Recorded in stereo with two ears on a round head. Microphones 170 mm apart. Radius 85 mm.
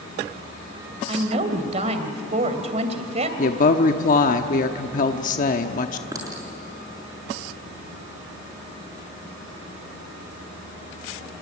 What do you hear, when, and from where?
1.1 s a woman speaking: 35° right (ahead or behind), 2.5 m
3.4 s a woman speaking: 45° left (ahead or behind), 1.0 m
6.1 s a clink: 20° right (ahead or behind), 7 m